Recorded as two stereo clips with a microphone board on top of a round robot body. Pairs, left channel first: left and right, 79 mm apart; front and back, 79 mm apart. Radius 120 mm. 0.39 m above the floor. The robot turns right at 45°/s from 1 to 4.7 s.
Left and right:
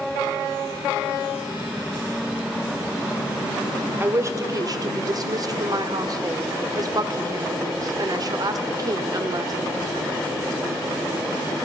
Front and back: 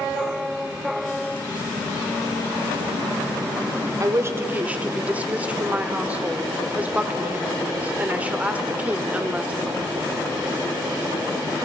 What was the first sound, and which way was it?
A woman speaking, 140° right.